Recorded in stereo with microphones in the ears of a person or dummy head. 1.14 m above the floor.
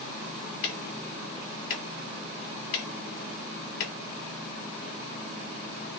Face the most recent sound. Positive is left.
turn(degrees=45)  # may be behind; listen again after turning